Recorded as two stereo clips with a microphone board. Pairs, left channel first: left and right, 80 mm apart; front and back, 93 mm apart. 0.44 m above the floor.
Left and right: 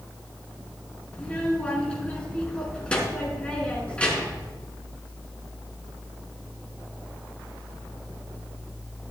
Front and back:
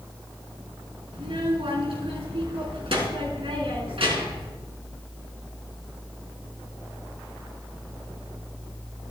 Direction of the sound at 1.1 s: 165° left.